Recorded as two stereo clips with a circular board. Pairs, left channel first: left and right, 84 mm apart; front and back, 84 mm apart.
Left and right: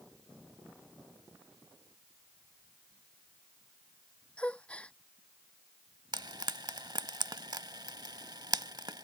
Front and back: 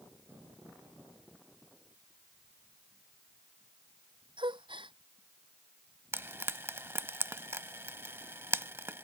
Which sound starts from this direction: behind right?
Frying, at 6.1 s.